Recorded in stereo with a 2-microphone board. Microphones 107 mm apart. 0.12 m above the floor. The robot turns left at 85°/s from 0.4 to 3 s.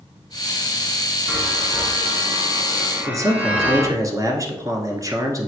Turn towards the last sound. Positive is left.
turn(degrees=-30)  # may be behind; listen again after turning